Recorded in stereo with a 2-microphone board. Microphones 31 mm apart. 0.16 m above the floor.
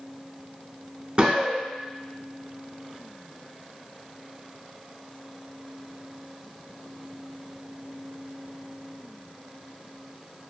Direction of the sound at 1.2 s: 35° right (ahead or behind).